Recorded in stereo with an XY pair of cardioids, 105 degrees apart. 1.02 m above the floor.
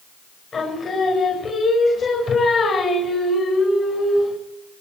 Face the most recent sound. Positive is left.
turn(degrees=45)